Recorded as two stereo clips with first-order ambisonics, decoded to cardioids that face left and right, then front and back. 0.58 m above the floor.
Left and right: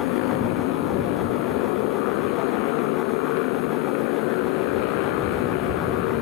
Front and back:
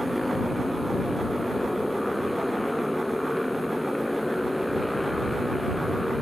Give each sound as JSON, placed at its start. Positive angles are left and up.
{"t": 0.0, "sound": "a motorcycle", "azimuth_deg": 85}